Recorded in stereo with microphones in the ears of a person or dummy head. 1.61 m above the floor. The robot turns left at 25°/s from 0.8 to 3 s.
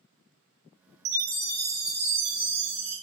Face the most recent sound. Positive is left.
turn(degrees=-155)